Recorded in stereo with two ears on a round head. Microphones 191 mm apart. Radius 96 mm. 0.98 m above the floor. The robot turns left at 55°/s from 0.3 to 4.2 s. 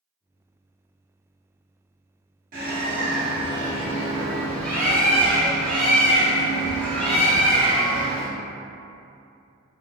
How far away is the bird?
About 1.0 m.